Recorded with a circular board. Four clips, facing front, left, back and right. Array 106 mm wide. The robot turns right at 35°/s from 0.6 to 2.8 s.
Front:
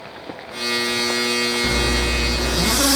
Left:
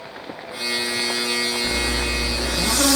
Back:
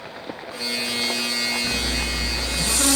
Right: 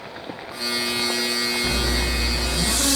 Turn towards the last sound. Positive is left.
turn(degrees=30)